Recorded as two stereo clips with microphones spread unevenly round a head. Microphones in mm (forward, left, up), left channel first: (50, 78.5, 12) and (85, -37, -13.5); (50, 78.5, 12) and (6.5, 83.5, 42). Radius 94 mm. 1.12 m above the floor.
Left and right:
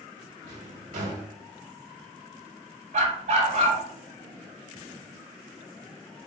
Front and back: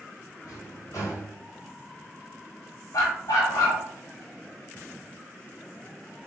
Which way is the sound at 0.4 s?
95° right.